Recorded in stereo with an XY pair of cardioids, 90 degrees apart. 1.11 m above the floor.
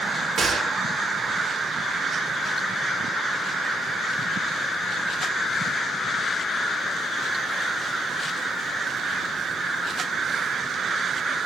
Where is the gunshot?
55° right, 1.8 m.